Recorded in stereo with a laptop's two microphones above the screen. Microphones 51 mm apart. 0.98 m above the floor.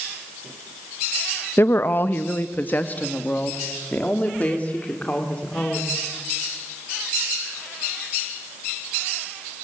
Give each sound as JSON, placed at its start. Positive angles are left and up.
{"t": 1.6, "sound": "a woman speaking", "side_deg": 50, "distance_m": 0.6}